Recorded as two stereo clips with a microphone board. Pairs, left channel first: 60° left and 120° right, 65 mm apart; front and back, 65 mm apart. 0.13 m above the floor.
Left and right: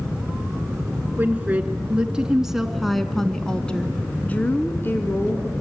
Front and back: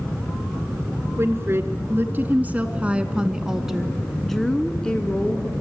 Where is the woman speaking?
170° right, 1.9 m; by 5.5 s 60° left, 1.9 m.